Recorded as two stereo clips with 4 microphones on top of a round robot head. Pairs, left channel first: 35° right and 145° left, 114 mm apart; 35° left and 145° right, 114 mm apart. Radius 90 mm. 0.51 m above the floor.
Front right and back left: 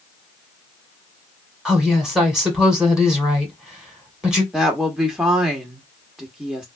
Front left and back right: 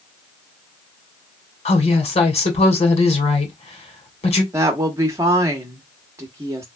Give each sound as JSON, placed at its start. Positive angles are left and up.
{"t": 1.6, "sound": "a woman speaking", "azimuth_deg": 60, "distance_m": 2.0}
{"t": 4.5, "sound": "a woman speaking", "azimuth_deg": -140, "distance_m": 1.0}